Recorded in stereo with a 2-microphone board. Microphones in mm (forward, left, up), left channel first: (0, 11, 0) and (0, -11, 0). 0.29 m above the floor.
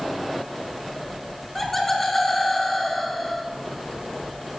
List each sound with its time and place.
1.6 s laughter: centre (ahead or behind), 3.5 m